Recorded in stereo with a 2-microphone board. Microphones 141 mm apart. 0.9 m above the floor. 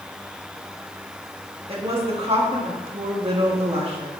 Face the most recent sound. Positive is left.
turn(degrees=-45)  # may be behind; listen again after turning